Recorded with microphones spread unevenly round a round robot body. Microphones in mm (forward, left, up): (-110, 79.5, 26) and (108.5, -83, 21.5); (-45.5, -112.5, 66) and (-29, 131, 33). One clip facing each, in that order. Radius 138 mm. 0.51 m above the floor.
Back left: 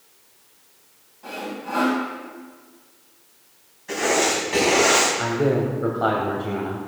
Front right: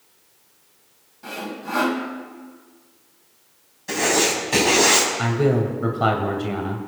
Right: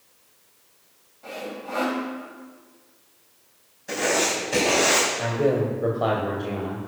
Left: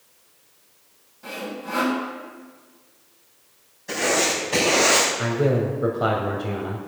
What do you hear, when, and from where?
1.2 s sawing: 15° left, 3 m
3.9 s writing: 5° right, 4 m
5.2 s a man speaking: 5° left, 2 m